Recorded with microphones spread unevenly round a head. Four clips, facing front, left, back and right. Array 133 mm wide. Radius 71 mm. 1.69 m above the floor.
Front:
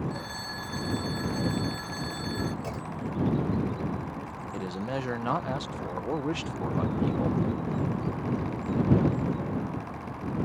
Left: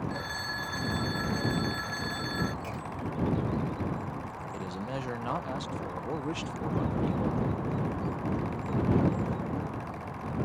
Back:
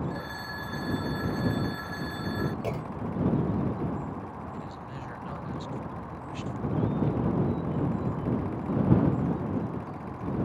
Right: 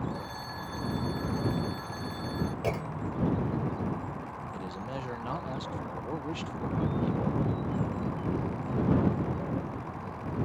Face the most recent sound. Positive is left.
turn(degrees=5)